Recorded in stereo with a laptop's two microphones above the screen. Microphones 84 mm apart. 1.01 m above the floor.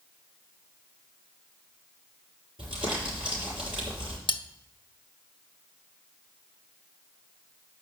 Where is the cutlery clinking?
90° left, 0.6 m.